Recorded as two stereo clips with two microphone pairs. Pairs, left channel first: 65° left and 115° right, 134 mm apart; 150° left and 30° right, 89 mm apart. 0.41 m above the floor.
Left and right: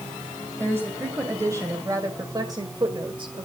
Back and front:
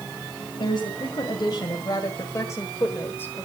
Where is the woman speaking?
175° left, 2.5 m; by 3.5 s 145° right, 1.5 m.